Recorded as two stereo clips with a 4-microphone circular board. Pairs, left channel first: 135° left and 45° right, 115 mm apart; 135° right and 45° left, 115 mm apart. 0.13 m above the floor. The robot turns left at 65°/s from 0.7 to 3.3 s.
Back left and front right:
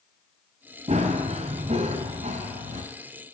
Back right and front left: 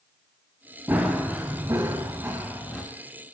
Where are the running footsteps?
30° right, 1.1 m; by 2.8 s 45° right, 1.7 m.